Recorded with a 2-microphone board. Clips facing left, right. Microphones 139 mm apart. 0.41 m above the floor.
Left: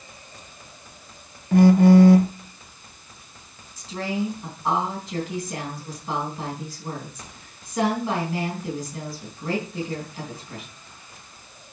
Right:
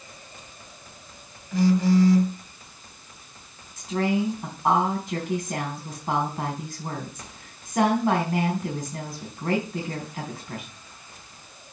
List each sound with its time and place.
1.5 s a phone buzzing: 60° left (ahead or behind), 0.6 m
3.8 s a woman speaking: 55° right (ahead or behind), 3.5 m